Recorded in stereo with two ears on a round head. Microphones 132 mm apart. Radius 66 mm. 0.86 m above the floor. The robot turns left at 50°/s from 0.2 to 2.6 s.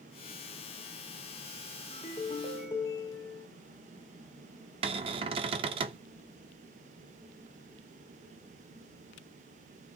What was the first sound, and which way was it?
A ringtone, 60° left.